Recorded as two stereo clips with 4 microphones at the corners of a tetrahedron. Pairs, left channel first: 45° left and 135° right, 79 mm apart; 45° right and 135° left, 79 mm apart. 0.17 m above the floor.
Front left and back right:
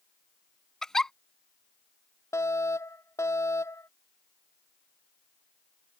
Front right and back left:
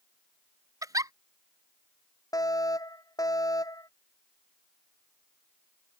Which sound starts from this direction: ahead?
A fire alarm, at 2.3 s.